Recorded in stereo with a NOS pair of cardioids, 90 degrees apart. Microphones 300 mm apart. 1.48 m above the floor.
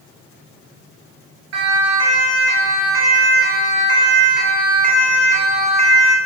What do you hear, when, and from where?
1.5 s a siren: 55° right, 5.5 m; by 6.2 s 15° right, 5 m